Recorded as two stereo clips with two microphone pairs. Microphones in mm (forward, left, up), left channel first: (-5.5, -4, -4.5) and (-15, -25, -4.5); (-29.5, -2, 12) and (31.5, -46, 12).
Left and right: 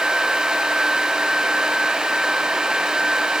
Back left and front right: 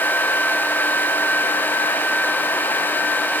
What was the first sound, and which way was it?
Only background noise.